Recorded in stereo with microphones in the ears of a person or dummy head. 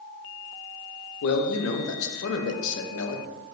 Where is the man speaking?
70° left (ahead or behind), 0.5 m.